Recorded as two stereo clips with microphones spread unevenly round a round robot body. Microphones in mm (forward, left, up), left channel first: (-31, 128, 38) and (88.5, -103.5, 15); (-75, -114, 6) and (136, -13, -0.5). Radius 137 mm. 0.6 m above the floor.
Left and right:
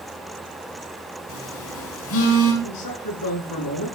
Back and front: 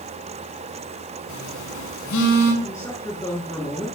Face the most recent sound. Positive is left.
turn(degrees=125)